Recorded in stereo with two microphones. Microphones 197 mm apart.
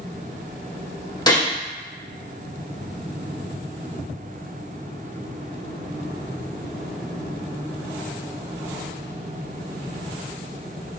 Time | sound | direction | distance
1.3 | a gunshot | 20° left (ahead or behind) | 0.7 m